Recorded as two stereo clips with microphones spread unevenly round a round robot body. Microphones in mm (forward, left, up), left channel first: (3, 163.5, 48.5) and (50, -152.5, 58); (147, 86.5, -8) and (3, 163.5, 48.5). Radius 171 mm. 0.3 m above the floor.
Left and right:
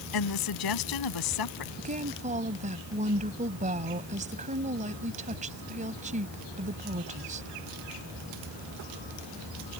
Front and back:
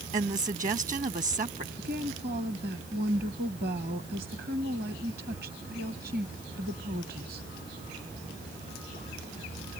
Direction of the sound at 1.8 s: 150° right.